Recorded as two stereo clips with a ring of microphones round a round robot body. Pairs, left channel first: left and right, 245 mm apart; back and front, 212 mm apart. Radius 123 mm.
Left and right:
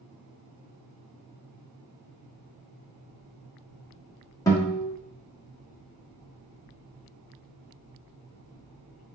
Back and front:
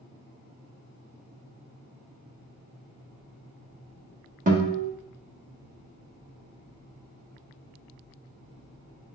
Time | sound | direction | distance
4.5 | a guitar | 20° left | 1.2 m